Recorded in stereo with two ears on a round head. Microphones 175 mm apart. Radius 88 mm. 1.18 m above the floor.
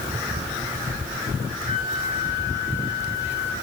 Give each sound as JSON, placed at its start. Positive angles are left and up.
{"t": 1.6, "sound": "a flute", "side_deg": 75, "distance_m": 8.5}